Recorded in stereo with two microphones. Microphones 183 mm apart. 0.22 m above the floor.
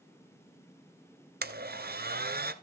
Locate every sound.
1.4 s a blender: 60° right (ahead or behind), 1.1 m